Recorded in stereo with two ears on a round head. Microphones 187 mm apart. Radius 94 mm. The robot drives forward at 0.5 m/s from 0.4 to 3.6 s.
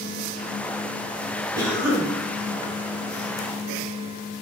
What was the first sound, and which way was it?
A cough, 15° right (ahead or behind).